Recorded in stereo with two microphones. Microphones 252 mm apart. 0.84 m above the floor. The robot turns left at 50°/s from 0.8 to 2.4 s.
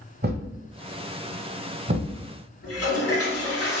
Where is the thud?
40° right (ahead or behind), 0.8 m; by 2.2 s 35° right (ahead or behind), 0.8 m.